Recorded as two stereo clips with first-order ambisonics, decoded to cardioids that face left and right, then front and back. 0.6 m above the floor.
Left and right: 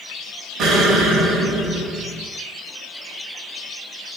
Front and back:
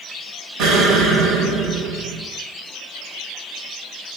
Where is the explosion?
145° right, 0.8 m.